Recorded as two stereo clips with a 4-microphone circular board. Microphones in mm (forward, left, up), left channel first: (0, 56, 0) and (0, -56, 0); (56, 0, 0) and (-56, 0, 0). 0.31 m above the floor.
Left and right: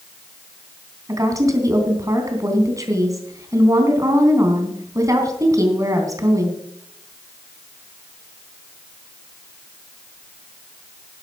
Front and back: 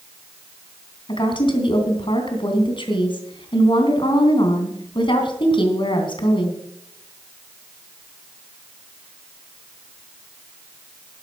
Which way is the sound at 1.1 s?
35° right.